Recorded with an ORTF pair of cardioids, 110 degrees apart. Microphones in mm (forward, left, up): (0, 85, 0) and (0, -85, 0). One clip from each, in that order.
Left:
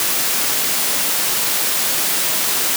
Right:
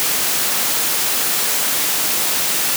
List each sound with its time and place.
Only background noise.